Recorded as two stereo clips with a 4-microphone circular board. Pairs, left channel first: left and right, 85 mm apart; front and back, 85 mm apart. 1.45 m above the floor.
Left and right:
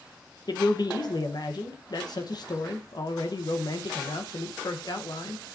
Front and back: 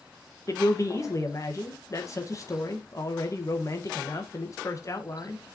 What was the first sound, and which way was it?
A man speaking, 50° left.